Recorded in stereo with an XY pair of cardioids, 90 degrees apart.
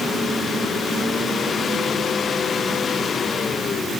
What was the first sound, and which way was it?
Only background noise.